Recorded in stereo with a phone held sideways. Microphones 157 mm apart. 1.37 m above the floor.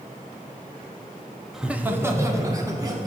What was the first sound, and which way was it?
Laughter, centre (ahead or behind).